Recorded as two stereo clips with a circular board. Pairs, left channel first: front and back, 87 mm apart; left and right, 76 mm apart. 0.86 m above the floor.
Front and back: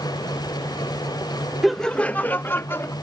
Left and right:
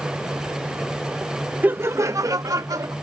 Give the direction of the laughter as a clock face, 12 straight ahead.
3 o'clock.